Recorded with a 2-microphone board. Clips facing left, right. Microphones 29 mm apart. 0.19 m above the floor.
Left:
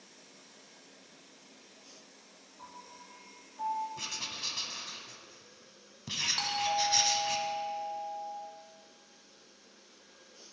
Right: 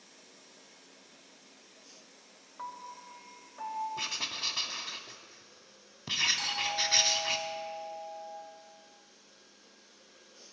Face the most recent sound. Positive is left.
turn(degrees=40)  # may be behind; listen again after turning